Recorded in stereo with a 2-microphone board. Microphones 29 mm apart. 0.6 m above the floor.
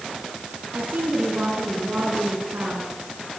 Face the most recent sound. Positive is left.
turn(degrees=-80)